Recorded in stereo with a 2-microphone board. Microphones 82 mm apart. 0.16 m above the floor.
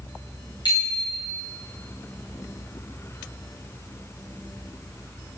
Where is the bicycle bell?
65° left (ahead or behind), 10 m.